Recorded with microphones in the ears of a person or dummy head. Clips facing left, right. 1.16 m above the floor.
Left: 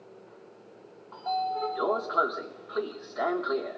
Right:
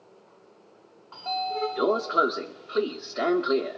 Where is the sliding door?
25° right (ahead or behind), 1.4 m.